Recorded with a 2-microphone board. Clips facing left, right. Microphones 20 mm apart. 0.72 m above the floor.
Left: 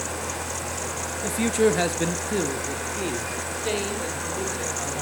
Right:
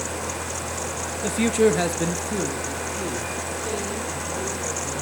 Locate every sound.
1.2 s a man speaking: 25° right (ahead or behind), 0.8 m; by 5.0 s 55° left (ahead or behind), 3 m